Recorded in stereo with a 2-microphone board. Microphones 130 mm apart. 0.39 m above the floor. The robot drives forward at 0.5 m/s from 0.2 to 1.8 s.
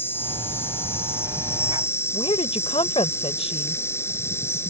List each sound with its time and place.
0.0 s an insect: 15° left (ahead or behind); by 4.7 s 20° left (ahead or behind)
2.1 s a woman speaking: 50° left (ahead or behind)